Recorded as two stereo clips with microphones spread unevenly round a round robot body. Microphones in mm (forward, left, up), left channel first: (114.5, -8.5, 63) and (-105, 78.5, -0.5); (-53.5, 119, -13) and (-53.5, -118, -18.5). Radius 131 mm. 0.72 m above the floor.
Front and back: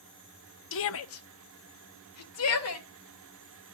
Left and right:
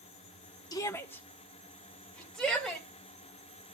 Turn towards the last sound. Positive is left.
turn(degrees=0)